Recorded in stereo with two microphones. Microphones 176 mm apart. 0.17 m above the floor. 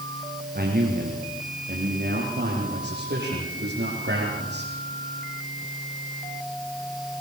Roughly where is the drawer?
No drawer in this recording.